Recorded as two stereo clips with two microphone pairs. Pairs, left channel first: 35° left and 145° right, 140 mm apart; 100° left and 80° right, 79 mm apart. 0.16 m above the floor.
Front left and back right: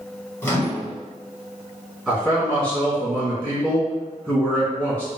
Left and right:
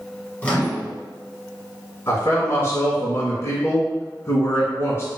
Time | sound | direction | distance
0.4 | a microwave | 75° left | 1.1 m
2.1 | a man speaking | 115° left | 1.8 m